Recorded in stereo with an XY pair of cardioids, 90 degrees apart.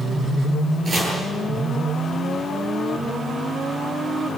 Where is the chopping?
45° right, 9 m.